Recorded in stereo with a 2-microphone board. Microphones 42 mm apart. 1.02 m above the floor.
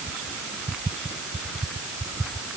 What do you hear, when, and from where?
Only background noise.